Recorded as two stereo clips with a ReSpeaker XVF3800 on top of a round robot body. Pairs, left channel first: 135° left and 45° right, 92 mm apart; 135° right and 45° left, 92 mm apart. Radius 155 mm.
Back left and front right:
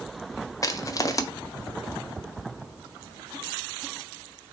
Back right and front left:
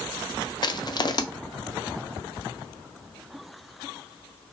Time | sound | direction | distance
0.6 | crushing | 175° right | 0.7 m